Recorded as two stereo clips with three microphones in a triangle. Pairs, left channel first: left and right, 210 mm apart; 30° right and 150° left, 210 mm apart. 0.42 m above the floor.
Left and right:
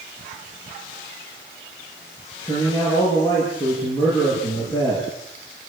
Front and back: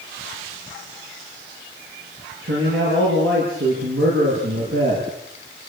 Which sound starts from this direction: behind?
A man speaking, at 2.4 s.